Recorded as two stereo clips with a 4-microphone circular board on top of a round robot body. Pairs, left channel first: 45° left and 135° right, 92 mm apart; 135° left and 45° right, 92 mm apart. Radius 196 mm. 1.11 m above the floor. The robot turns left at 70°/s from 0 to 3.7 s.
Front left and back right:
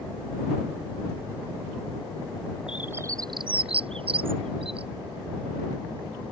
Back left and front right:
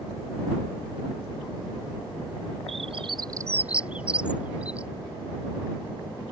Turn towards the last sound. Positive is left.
turn(degrees=-120)